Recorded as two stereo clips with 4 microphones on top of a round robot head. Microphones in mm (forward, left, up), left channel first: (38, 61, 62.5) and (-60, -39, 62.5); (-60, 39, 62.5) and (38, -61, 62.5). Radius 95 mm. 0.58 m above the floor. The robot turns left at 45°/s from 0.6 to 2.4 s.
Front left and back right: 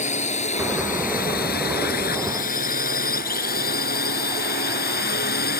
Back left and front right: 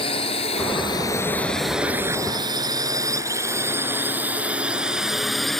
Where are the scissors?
I don't hear scissors.